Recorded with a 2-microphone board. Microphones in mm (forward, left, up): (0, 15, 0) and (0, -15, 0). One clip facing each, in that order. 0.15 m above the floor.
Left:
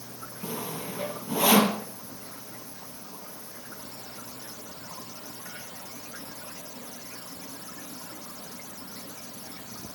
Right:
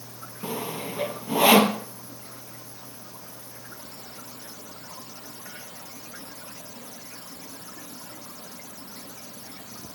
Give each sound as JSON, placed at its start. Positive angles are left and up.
{"t": 0.4, "sound": "sawing", "side_deg": -40, "distance_m": 1.2}